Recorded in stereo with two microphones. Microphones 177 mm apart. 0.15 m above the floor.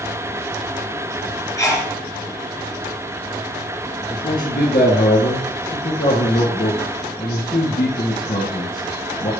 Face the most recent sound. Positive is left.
turn(degrees=55)  # may be behind; listen again after turning